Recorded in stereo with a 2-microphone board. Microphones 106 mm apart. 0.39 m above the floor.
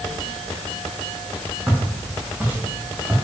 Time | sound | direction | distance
1.7 | footsteps | 15° right (ahead or behind) | 3.5 m